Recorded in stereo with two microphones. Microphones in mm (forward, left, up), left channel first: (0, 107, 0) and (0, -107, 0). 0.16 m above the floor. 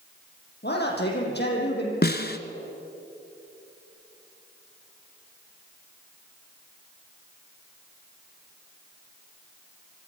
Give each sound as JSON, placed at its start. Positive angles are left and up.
{"t": 0.6, "sound": "a man speaking", "side_deg": 55, "distance_m": 5.5}
{"t": 2.0, "sound": "a snare drum", "side_deg": 50, "distance_m": 1.1}